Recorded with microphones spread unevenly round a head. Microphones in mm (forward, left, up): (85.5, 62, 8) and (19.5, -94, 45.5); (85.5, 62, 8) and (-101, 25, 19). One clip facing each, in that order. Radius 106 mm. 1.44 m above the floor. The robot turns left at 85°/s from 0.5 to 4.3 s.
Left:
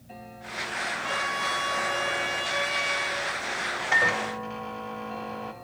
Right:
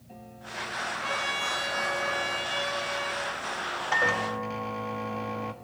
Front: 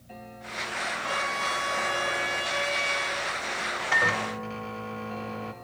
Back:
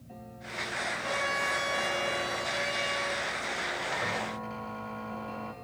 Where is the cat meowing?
No cat meowing in this recording.